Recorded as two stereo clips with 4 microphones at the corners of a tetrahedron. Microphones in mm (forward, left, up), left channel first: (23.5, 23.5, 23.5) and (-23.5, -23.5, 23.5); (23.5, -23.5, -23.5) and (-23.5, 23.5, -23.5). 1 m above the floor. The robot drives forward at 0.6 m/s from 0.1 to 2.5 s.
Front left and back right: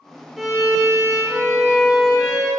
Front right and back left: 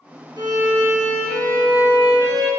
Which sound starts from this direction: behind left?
A violin, at 0.4 s.